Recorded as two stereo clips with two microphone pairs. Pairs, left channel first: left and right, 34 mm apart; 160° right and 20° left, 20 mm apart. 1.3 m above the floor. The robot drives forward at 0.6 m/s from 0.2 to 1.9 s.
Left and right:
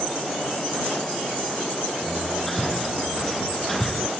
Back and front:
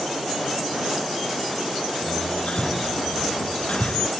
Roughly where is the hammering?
Behind.